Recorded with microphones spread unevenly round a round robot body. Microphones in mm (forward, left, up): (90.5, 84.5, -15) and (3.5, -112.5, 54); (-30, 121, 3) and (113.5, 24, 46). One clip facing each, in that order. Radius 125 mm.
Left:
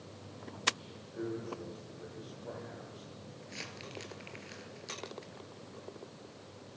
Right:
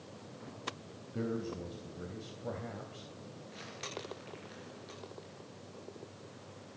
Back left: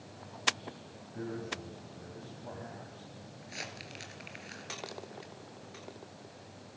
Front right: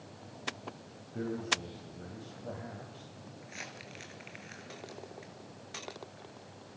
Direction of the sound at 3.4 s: 100° left.